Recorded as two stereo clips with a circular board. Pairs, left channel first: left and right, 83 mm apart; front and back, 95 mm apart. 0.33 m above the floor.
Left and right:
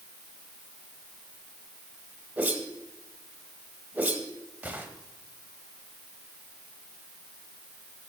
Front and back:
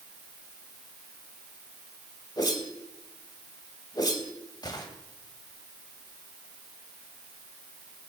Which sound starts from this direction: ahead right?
A whoosh, at 2.4 s.